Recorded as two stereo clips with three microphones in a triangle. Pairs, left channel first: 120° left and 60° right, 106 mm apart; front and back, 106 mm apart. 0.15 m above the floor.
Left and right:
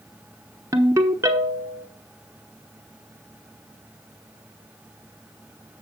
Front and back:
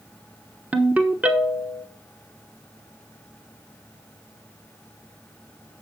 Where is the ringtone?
110° right, 1.0 m.